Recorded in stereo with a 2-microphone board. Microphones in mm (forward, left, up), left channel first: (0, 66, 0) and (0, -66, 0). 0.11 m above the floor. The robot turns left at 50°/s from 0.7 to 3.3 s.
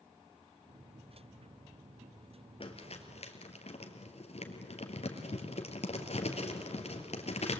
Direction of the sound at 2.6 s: 45° left (ahead or behind).